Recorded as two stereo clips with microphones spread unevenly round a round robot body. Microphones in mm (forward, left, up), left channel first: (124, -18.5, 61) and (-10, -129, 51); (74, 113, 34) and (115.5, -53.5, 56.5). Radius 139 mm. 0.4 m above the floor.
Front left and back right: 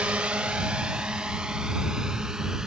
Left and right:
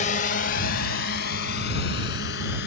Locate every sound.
0.0 s a drone: 135° left; by 2.7 s 130° left